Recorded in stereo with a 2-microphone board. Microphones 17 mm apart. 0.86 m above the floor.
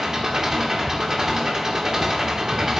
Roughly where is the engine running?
Right.